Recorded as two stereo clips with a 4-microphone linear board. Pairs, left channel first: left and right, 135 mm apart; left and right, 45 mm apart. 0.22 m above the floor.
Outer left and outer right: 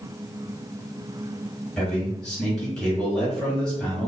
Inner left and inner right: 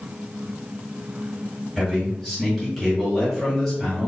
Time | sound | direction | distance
1.8 | a man speaking | 5° left (ahead or behind) | 1.7 m